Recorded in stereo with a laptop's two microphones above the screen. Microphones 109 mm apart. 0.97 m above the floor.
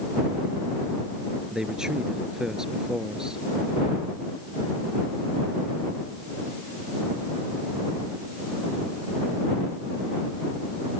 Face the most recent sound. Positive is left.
turn(degrees=-5)  # may be behind; listen again after turning